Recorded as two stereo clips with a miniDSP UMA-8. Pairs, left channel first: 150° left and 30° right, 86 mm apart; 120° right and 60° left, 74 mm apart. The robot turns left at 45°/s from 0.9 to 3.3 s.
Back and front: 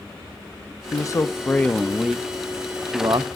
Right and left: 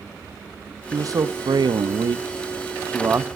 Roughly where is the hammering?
I don't hear hammering.